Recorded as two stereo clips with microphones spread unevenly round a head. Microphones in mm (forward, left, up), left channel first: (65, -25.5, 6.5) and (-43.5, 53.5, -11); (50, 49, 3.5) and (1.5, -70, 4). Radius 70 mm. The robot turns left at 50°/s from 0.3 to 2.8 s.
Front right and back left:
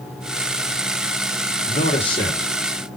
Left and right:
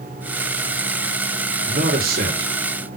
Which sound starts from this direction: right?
A man speaking, at 1.7 s.